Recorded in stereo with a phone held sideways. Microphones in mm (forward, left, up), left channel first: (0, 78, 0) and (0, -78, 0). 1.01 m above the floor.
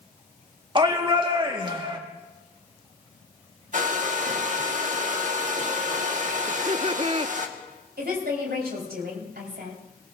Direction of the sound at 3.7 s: 55° right (ahead or behind).